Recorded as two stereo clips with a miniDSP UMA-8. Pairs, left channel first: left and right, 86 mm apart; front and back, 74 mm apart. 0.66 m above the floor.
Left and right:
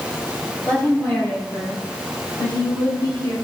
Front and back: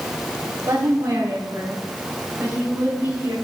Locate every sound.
0.7 s a woman speaking: 155° left, 2.5 m; by 3.3 s 120° left, 5 m